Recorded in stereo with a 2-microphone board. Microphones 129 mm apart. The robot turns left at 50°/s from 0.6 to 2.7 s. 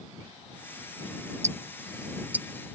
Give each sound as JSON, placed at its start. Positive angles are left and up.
{"t": 1.4, "sound": "ticking", "side_deg": -60}